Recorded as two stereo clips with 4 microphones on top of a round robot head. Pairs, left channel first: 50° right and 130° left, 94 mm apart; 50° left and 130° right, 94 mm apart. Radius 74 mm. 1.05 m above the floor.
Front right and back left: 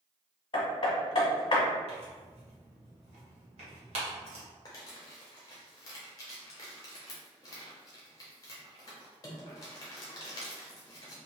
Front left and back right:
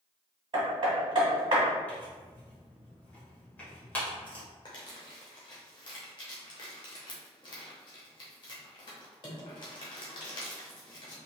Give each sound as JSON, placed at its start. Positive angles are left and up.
{"t": 0.5, "sound": "hammering", "azimuth_deg": -90, "distance_m": 0.9}
{"t": 1.9, "sound": "tearing paper", "azimuth_deg": 120, "distance_m": 1.3}
{"t": 4.7, "sound": "crumpling", "azimuth_deg": 5, "distance_m": 0.6}